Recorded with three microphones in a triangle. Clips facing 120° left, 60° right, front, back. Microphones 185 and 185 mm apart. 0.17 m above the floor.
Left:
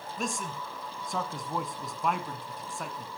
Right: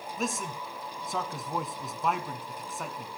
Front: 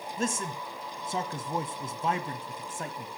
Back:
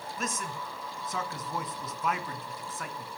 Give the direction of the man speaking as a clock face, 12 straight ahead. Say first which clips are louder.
Right 2 dB, front 5 dB; 11 o'clock.